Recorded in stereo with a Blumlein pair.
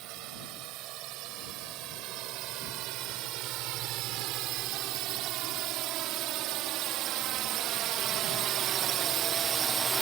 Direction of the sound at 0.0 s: 40° right.